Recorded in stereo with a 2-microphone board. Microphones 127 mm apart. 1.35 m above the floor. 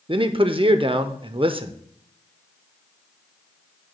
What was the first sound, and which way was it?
A man speaking, 45° right (ahead or behind).